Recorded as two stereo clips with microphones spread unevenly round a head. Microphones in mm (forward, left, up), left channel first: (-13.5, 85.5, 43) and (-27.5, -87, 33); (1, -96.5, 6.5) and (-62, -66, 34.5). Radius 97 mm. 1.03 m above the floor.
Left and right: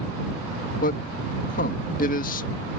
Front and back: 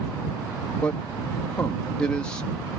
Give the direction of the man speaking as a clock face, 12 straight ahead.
11 o'clock.